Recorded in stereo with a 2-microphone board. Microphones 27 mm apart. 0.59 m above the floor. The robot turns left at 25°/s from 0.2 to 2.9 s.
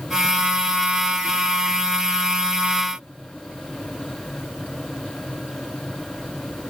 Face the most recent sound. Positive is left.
No sound to turn to.